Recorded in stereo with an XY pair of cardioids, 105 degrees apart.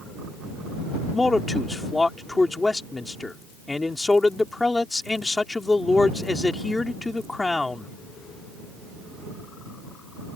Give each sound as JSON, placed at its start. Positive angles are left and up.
{"t": 1.1, "sound": "a man speaking", "azimuth_deg": 15}